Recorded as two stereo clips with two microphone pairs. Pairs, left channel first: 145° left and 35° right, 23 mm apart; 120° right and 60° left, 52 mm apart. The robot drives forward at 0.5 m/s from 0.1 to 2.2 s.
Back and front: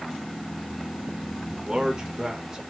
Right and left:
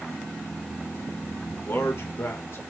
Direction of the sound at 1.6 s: 85° right.